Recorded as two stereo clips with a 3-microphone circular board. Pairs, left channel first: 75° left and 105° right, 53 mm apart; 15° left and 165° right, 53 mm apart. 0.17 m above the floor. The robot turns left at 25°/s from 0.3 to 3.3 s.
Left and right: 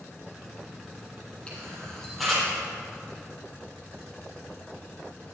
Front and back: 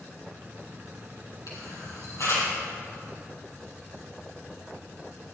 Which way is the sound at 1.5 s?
5° left.